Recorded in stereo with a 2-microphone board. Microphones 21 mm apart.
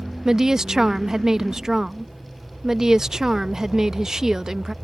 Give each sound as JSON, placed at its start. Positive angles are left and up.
{"t": 0.2, "sound": "a woman speaking", "side_deg": -35}